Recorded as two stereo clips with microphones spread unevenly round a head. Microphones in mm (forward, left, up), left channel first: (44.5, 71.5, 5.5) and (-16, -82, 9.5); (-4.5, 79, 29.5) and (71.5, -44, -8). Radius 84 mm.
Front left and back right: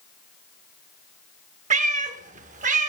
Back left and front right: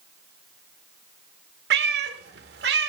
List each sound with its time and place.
1.7 s a cat meowing: 80° right, 0.9 m